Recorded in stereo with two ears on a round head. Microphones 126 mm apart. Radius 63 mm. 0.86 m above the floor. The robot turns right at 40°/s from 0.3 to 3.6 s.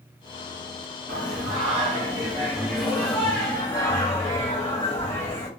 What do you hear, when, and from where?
1.1 s singing: 70° right, 1.4 m; by 5.5 s 30° left, 1.4 m